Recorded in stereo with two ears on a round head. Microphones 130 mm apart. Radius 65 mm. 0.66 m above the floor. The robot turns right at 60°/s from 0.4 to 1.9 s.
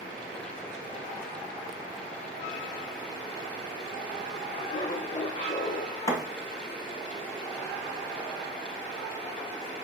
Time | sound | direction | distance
4.5 | laughter | 45° left (ahead or behind) | 1.6 m
6.1 | a thud | 25° left (ahead or behind) | 2 m